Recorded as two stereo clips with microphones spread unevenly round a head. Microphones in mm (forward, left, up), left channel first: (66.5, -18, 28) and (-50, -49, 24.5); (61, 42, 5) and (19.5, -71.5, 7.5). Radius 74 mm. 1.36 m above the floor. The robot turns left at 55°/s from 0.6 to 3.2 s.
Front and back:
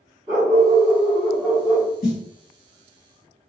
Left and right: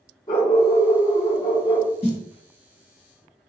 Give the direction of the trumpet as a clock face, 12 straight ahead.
No trumpet in this recording.